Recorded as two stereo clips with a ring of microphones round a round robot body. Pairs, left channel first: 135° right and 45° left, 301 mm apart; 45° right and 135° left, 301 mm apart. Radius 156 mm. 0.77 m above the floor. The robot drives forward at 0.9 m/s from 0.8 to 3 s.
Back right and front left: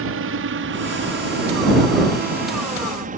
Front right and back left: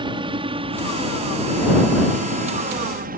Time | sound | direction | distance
0.0 | a helicopter | 65° left | ?